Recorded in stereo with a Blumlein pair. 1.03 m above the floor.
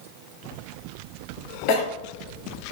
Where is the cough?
40° left, 0.9 m.